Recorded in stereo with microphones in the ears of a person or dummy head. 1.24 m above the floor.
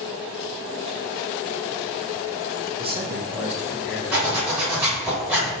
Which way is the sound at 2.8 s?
30° right (ahead or behind).